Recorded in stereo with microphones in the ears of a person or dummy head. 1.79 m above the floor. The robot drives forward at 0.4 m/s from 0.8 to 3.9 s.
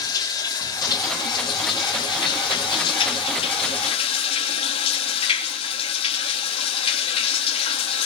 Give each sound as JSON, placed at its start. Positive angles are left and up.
{"t": 0.0, "sound": "running water", "side_deg": 25, "distance_m": 4.0}